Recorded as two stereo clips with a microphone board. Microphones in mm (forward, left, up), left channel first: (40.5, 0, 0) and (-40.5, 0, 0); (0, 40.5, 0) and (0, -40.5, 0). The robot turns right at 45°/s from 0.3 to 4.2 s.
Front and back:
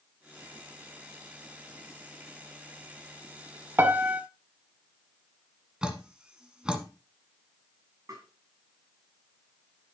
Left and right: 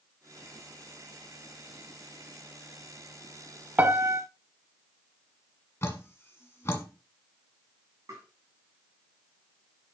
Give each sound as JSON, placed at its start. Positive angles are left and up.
{"t": 3.8, "sound": "a piano", "azimuth_deg": -140, "distance_m": 0.7}
{"t": 5.8, "sound": "dripping", "azimuth_deg": 110, "distance_m": 1.4}
{"t": 8.1, "sound": "tapping", "azimuth_deg": -135, "distance_m": 5.0}